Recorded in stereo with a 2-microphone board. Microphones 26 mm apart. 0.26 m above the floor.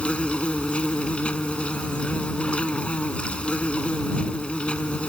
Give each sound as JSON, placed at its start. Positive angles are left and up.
{"t": 0.0, "sound": "an insect", "side_deg": 55}